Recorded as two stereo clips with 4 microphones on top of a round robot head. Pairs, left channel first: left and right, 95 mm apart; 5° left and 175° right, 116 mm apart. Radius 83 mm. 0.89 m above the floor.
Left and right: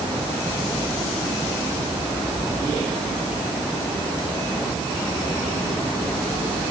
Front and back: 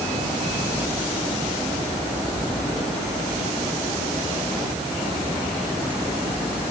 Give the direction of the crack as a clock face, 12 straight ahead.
No crack in this recording.